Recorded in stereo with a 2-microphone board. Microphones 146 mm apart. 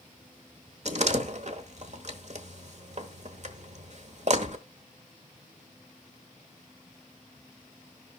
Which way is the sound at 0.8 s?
55° right (ahead or behind).